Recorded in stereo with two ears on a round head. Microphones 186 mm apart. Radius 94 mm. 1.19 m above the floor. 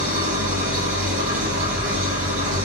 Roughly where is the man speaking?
I don't hear a man speaking.